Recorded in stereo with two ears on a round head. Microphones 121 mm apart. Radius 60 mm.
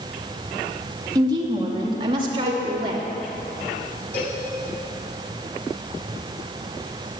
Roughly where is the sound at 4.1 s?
Left.